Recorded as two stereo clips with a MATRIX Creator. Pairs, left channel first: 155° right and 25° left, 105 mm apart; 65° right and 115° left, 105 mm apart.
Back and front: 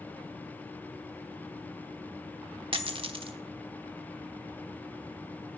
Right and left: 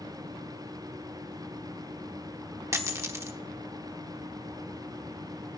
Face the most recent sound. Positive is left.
turn(degrees=50)